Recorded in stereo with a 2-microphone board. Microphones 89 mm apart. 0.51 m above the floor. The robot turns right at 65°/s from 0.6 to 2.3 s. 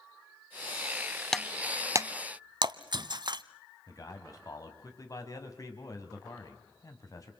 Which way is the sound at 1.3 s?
5° left (ahead or behind).